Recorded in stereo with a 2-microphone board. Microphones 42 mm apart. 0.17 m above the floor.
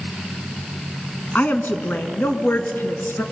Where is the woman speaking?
45° left (ahead or behind), 1.5 m; by 3.2 s 60° left (ahead or behind), 2.5 m.